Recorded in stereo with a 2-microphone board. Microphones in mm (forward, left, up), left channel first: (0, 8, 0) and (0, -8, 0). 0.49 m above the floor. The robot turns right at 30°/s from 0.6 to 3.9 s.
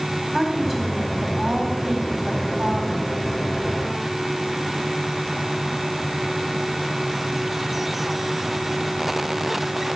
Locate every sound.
0.3 s a woman speaking: 175° left, 3.5 m; by 3.0 s 110° right, 3.5 m